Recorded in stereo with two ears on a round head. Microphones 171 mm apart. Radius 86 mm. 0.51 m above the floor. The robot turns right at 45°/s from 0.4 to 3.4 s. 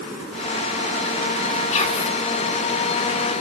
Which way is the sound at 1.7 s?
40° left (ahead or behind).